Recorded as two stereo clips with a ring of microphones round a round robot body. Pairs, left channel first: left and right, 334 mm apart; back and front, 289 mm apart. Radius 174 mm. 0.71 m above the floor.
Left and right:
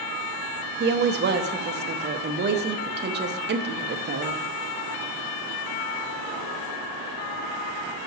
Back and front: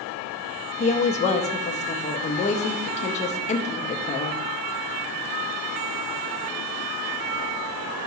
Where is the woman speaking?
130° right, 0.6 m.